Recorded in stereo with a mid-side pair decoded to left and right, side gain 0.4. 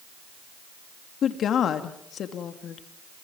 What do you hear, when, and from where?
1.2 s a woman speaking: 70° left, 2.5 m